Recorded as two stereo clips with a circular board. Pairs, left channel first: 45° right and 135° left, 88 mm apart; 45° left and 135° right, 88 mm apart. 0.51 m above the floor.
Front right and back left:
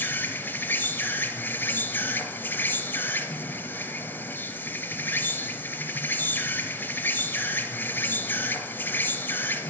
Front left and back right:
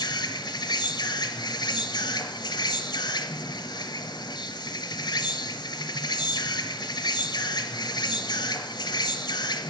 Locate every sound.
0.0 s an insect: 20° left, 1.1 m